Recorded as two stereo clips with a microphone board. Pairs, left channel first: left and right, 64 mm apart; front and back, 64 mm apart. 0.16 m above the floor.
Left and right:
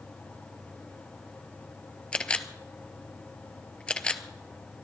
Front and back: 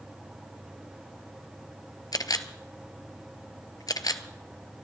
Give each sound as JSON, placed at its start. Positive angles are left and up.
{"t": 2.1, "sound": "a camera shutter", "azimuth_deg": 15, "distance_m": 0.9}